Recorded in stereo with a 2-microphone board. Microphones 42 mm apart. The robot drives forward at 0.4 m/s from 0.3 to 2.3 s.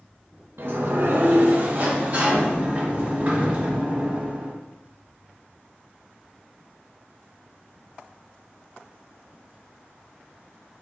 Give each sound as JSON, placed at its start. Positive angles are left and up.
{"t": 0.6, "sound": "a sliding door", "side_deg": -60, "distance_m": 0.6}